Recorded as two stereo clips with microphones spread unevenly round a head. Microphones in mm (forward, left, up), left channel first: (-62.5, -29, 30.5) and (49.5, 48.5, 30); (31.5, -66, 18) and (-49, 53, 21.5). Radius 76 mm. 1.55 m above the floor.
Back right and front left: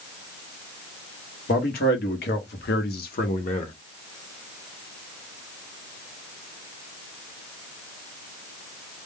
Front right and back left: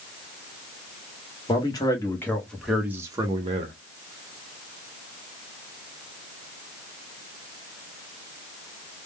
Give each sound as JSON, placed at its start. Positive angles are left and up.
{"t": 1.5, "sound": "a man speaking", "azimuth_deg": -115, "distance_m": 1.1}